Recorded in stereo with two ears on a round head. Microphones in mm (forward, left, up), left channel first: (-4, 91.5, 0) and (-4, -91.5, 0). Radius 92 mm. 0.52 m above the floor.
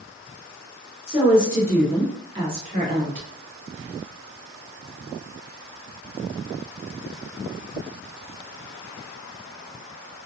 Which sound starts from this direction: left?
A woman speaking, at 1.1 s.